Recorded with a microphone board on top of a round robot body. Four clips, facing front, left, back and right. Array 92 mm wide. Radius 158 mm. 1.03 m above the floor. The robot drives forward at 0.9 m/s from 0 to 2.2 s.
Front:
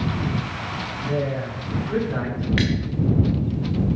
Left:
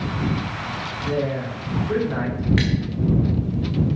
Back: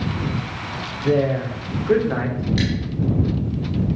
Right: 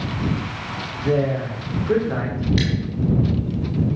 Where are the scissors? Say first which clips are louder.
Right 1 dB, front 1 dB; 35° left, 0.5 m.